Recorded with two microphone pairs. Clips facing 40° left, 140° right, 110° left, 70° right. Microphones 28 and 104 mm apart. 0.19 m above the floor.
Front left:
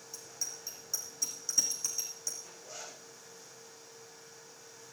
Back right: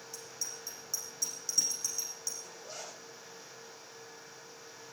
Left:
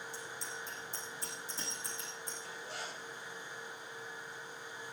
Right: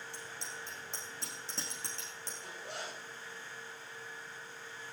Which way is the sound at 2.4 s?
95° right.